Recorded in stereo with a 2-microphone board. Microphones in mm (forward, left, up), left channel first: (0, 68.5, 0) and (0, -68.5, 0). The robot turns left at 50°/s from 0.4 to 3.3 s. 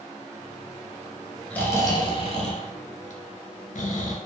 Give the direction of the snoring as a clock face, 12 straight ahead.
6 o'clock.